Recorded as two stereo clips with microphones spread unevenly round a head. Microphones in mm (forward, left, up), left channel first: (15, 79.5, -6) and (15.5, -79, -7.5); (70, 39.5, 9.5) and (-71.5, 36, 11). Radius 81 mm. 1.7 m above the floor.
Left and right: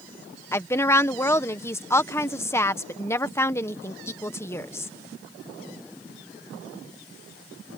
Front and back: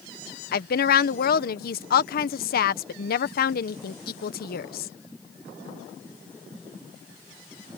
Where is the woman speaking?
15° left.